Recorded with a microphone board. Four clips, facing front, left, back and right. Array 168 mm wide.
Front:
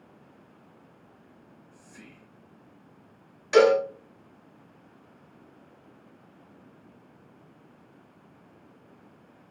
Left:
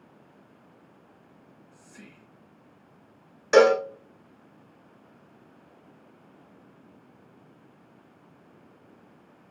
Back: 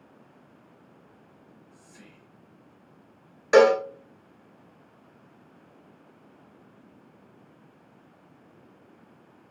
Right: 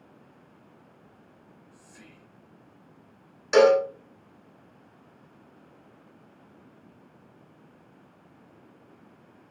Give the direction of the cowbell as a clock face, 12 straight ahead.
7 o'clock.